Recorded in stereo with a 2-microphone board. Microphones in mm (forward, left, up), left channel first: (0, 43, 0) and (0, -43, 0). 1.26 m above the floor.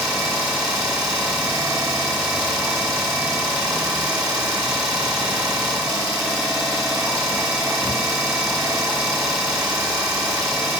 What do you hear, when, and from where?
0.0 s an engine running: 5° right (ahead or behind), 2.0 m